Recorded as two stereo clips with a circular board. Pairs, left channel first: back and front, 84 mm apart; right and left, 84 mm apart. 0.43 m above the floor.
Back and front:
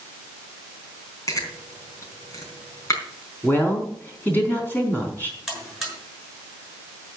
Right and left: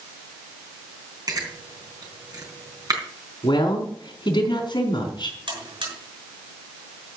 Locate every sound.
1.3 s chewing: 130° left, 4 m
3.4 s a woman speaking: 115° right, 4 m
5.5 s a buzzer: 85° left, 6.5 m